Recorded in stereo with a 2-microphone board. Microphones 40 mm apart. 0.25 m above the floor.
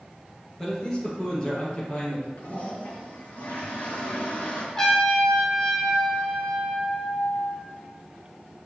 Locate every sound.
0.6 s a man speaking: 15° left (ahead or behind), 3 m; by 2.3 s 25° left (ahead or behind), 5 m
2.4 s a toilet flushing: 45° left (ahead or behind), 3.5 m
4.8 s a trumpet: 15° left (ahead or behind), 2.5 m